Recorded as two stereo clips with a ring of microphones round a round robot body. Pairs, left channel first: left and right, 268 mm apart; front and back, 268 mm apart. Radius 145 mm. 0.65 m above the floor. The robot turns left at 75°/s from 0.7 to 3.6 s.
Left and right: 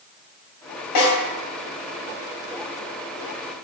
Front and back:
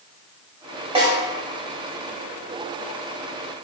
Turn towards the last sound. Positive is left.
turn(degrees=-90)